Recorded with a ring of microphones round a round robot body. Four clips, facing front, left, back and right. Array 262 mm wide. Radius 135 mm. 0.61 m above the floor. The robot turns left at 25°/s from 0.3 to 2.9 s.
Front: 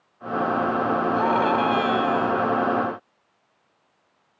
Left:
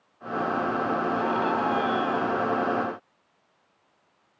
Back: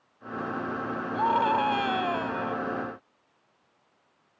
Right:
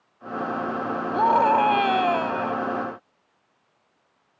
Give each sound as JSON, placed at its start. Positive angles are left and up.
{"t": 1.1, "sound": "a scream", "azimuth_deg": -65}